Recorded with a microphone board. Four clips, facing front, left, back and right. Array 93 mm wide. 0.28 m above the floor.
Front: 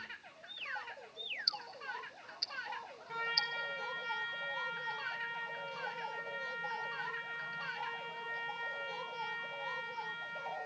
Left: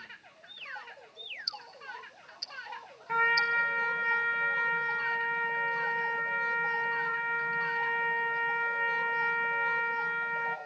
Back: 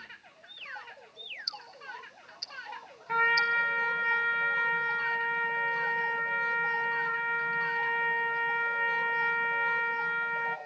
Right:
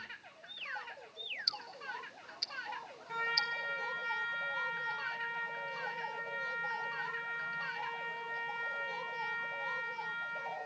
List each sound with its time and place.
1.5 s ticking: 95° right, 0.6 m
3.1 s a trumpet: 140° left, 0.6 m